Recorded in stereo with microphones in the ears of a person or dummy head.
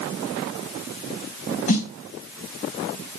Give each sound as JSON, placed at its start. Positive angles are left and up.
{"t": 1.7, "sound": "a snare drum", "side_deg": 45, "distance_m": 1.4}